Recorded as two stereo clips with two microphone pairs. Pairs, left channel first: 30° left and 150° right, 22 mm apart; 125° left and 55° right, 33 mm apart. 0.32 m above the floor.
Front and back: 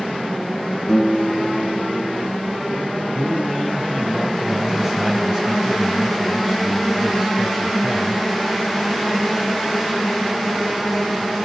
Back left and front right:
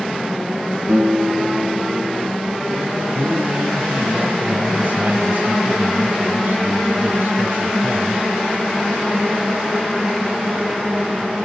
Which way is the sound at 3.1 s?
80° right.